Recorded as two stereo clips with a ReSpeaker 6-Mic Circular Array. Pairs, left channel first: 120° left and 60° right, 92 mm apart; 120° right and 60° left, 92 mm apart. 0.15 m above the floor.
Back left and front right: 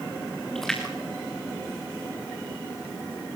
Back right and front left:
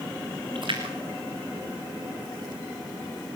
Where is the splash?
35° left, 3.5 m.